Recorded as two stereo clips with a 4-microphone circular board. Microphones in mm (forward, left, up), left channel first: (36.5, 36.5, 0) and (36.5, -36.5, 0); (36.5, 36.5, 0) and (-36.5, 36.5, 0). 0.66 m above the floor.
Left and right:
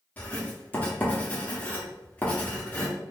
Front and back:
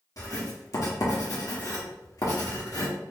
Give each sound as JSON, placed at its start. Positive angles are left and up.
{"t": 0.2, "sound": "writing", "azimuth_deg": 25, "distance_m": 1.7}